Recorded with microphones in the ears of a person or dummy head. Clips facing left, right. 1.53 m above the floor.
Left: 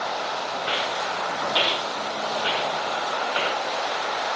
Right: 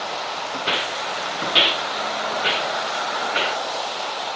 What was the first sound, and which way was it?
Footsteps, 40° right (ahead or behind).